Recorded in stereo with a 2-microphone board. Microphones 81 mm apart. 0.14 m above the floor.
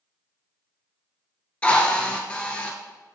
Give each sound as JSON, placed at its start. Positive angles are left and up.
{"t": 1.6, "sound": "a drill", "side_deg": 20, "distance_m": 0.8}